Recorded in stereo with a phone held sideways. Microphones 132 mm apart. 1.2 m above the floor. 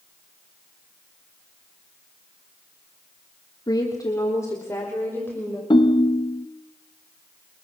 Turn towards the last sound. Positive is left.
turn(degrees=35)  # may be behind; listen again after turning